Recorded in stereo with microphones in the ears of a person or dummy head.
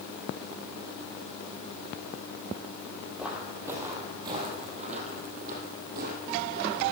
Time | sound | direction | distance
3.2 | footsteps | 5° right (ahead or behind) | 2.5 m